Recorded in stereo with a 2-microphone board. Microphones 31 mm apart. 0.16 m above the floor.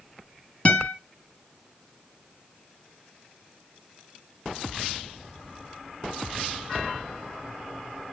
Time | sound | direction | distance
0.7 | a guitar | 35° left (ahead or behind) | 1.6 m